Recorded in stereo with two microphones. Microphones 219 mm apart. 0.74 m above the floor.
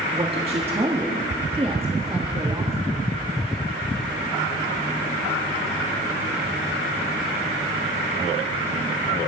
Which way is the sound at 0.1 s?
25° right (ahead or behind).